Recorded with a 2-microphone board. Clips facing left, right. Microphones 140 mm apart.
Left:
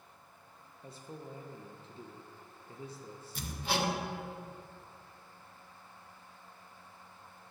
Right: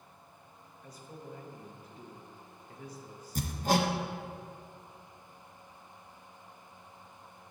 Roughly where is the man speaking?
Left.